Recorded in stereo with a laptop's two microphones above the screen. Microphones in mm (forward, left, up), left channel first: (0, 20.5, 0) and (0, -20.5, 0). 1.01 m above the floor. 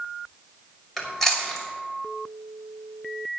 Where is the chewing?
5° left (ahead or behind), 6 m.